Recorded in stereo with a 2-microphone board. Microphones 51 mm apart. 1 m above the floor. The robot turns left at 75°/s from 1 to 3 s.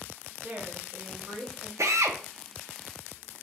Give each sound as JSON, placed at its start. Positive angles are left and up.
{"t": 0.4, "sound": "a woman speaking", "azimuth_deg": -30, "distance_m": 1.6}
{"t": 1.8, "sound": "a drill", "side_deg": -70, "distance_m": 0.6}